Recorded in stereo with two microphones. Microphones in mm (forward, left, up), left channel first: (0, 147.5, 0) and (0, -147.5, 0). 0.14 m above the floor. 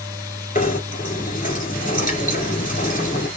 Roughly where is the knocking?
Left.